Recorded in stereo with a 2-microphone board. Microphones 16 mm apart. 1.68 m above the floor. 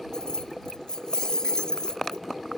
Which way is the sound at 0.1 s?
65° left (ahead or behind).